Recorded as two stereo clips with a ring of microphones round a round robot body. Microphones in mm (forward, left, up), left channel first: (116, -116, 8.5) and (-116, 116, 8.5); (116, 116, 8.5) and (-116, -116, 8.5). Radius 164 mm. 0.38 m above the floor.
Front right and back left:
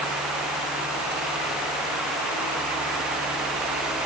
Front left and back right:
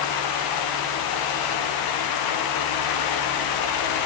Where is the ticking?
No ticking in this recording.